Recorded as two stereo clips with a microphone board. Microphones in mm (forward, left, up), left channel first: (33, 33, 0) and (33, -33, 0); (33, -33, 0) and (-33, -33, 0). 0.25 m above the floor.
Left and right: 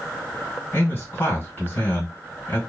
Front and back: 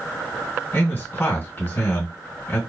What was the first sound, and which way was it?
A man speaking, 60° left.